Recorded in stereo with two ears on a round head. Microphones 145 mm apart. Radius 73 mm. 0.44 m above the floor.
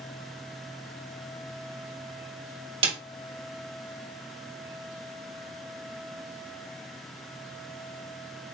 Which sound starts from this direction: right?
A snare drum, at 2.8 s.